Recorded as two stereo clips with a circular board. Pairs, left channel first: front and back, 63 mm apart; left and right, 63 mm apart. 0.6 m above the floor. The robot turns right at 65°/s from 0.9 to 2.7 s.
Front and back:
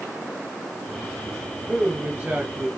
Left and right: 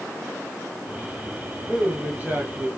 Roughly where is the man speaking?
Behind.